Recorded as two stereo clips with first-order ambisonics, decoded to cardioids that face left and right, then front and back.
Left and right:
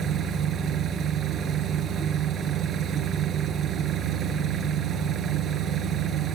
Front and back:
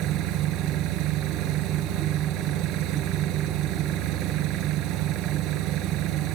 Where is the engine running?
150° right.